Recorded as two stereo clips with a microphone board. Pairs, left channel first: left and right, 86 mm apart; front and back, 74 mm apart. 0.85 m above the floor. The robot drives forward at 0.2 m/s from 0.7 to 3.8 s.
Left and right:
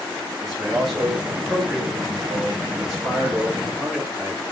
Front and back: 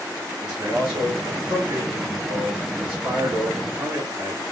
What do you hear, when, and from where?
0.4 s a man speaking: straight behind, 1.3 m